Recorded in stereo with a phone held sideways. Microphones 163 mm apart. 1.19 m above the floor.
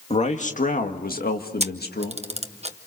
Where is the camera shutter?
40° right (ahead or behind), 0.9 m.